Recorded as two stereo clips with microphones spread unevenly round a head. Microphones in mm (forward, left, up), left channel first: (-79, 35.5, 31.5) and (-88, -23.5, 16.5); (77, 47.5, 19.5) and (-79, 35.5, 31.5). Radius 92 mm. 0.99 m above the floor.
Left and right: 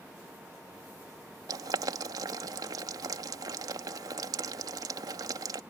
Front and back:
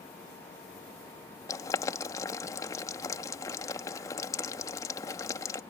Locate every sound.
1.5 s boiling: 70° right